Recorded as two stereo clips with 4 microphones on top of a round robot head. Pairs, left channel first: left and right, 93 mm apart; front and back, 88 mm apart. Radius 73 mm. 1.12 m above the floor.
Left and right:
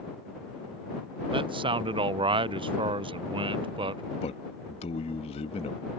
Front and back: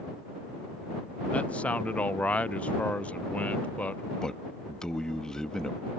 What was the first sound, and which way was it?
A man speaking, 75° right.